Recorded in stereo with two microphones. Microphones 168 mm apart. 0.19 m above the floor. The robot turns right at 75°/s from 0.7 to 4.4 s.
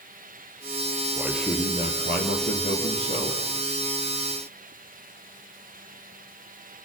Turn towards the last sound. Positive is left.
turn(degrees=-125)